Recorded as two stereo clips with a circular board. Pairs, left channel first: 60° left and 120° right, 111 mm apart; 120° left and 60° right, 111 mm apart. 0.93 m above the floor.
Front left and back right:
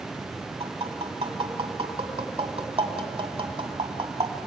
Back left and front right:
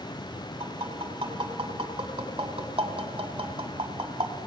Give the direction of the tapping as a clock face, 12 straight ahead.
3 o'clock.